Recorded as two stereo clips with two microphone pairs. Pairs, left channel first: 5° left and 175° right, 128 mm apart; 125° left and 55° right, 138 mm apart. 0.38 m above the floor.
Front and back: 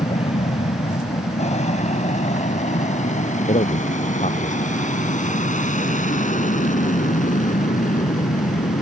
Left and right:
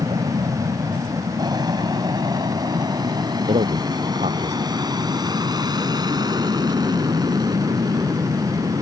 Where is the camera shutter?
I don't hear a camera shutter.